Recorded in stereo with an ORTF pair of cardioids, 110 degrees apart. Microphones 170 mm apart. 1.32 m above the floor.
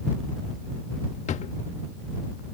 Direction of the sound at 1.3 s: 45° left.